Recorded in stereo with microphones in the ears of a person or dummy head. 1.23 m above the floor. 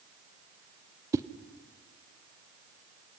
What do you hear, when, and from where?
1.1 s a whoosh: 15° right (ahead or behind), 0.6 m